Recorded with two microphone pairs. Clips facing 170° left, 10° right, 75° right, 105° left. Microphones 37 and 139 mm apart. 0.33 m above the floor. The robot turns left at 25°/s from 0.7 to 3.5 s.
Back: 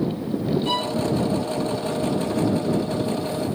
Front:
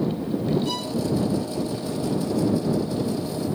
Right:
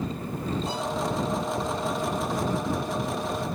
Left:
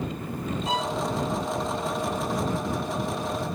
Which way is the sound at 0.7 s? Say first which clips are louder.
Back 4 dB, left 2 dB; 105° left.